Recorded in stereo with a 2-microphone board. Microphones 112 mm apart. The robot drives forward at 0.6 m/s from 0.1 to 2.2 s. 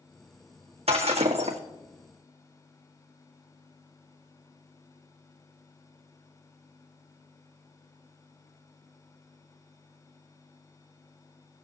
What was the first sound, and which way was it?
Breaking glass, 60° right (ahead or behind).